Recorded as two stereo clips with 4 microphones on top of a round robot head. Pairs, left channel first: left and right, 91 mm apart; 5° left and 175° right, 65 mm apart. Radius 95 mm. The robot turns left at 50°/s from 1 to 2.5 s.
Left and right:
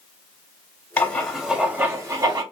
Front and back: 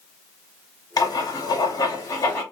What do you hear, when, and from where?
1.0 s writing: 20° left, 1.2 m; by 2.4 s 50° right, 1.2 m